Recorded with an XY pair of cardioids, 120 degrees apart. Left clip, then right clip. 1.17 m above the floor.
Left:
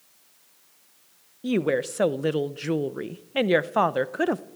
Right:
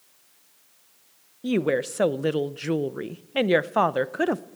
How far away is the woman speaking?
About 0.6 m.